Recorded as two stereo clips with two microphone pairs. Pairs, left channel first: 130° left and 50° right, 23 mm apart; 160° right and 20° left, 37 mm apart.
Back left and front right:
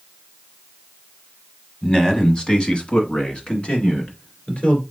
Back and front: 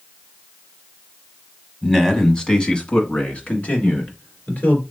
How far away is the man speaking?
About 1.1 m.